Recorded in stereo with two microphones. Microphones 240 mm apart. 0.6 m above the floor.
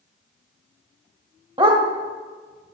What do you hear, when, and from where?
1.6 s a dog barking: 20° right (ahead or behind), 1.2 m